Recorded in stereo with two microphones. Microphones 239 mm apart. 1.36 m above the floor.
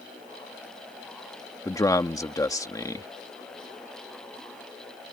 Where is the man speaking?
15° left (ahead or behind).